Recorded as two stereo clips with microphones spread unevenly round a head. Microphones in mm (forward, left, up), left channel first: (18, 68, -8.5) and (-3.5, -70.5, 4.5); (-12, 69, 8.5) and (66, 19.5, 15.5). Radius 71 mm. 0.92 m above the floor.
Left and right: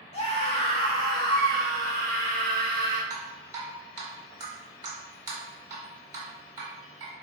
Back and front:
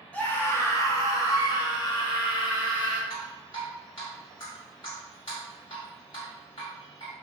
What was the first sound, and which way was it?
A scream, 85° left.